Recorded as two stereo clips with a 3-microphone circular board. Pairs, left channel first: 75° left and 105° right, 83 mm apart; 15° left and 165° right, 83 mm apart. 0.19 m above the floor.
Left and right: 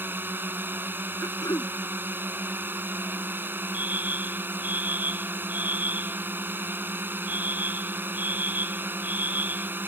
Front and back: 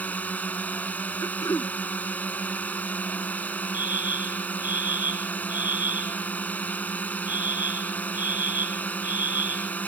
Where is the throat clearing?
50° left.